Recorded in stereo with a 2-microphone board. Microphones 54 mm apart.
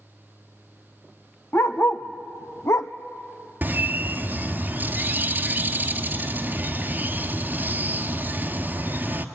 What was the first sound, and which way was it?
A dog barking, 40° left (ahead or behind).